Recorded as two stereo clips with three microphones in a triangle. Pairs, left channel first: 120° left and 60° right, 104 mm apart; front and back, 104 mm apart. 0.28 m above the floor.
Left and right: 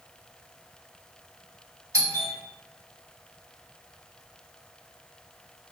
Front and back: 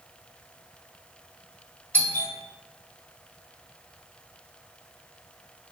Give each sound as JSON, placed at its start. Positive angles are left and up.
{"t": 1.9, "sound": "a doorbell", "azimuth_deg": -60, "distance_m": 1.5}